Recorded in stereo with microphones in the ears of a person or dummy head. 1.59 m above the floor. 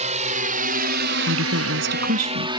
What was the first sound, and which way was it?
A drone, 40° right (ahead or behind).